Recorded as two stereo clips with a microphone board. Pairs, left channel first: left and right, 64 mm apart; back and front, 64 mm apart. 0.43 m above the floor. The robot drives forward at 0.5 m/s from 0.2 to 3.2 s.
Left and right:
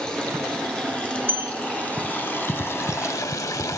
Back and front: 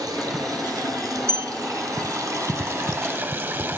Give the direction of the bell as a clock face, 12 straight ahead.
1 o'clock.